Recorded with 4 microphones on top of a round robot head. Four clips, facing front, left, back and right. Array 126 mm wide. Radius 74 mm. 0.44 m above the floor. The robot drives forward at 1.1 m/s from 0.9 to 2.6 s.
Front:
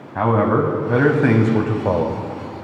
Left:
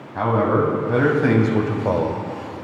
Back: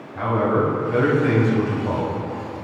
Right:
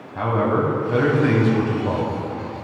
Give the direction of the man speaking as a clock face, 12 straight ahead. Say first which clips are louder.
Left 2 dB, front 3 dB; 11 o'clock.